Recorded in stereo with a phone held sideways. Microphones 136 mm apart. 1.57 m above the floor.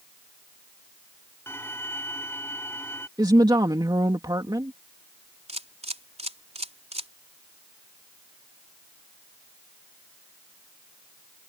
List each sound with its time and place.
1.5 s a violin: 20° left (ahead or behind)
3.2 s a woman speaking: 30° right (ahead or behind)
5.5 s a camera shutter: 50° right (ahead or behind)